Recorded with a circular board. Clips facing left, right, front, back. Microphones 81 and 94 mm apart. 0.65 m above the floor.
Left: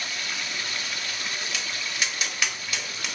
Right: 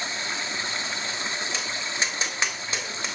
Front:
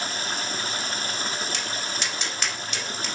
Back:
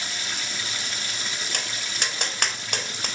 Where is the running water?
35° right, 1.1 m.